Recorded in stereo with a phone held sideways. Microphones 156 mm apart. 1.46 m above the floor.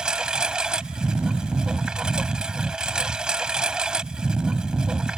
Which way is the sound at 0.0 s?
5° right (ahead or behind).